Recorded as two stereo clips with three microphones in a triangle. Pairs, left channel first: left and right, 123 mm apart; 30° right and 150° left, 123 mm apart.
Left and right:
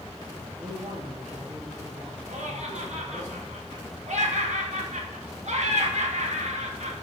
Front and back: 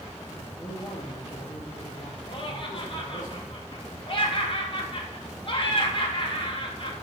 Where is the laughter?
75° right, 2.5 m.